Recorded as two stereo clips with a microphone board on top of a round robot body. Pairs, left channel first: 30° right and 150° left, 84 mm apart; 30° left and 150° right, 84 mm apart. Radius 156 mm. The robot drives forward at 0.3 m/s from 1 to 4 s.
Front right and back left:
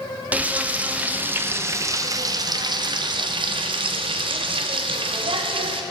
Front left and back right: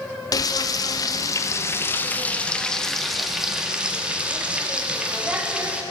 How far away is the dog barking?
No dog barking in this recording.